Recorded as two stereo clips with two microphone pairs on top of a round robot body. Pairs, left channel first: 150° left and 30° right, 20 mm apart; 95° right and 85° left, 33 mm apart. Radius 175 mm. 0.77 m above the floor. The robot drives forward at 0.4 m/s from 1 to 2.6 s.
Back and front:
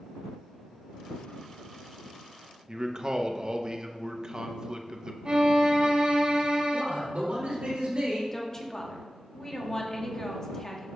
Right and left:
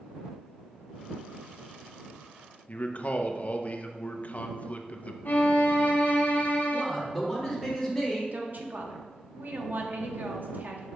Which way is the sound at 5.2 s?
70° right.